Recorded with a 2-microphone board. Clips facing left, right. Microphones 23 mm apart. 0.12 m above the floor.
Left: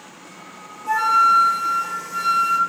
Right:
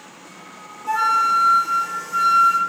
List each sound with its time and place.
0.9 s a flute: 25° right (ahead or behind), 1.7 m